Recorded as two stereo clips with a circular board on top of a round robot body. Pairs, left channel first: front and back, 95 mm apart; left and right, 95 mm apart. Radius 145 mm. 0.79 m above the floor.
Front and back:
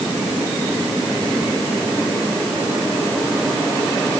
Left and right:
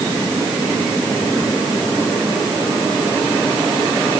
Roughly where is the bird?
No bird in this recording.